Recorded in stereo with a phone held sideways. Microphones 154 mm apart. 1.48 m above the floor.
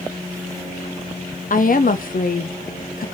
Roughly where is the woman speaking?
Left.